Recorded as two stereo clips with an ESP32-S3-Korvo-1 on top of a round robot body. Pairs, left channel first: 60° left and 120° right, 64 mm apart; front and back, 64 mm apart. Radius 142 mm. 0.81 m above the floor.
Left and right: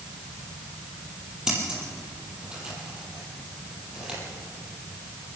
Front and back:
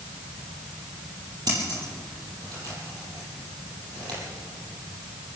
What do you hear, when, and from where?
1.5 s scissors: 165° left, 6.5 m